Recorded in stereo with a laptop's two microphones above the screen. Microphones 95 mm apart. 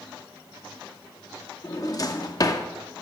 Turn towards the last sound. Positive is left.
turn(degrees=40)  # may be behind; listen again after turning